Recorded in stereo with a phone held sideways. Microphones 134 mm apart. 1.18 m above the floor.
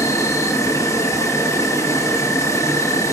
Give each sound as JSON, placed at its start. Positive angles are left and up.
{"t": 0.0, "sound": "an insect", "side_deg": 20, "distance_m": 0.9}